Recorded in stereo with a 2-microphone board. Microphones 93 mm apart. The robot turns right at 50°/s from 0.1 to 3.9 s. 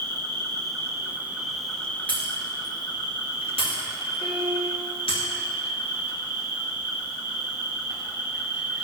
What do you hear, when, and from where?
0.0 s an insect: 75° right, 1.0 m; by 8.8 s 115° left, 1.0 m
2.1 s breaking glass: 15° left (ahead or behind), 2 m; by 5.2 s 75° left (ahead or behind), 2 m
4.2 s a piano: 80° left, 2.5 m